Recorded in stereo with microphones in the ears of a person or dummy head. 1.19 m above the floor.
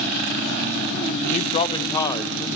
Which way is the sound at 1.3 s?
30° left (ahead or behind).